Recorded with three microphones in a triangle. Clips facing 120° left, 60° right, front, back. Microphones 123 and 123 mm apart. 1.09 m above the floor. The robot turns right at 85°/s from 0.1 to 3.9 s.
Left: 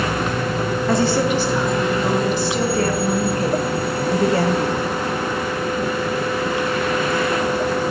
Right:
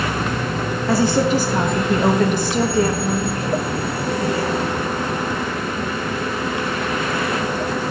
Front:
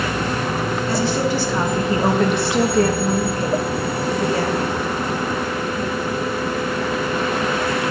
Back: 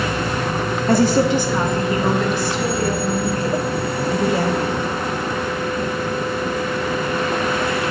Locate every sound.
0.9 s a woman speaking: 150° right, 1.2 m; by 4.8 s 105° left, 1.2 m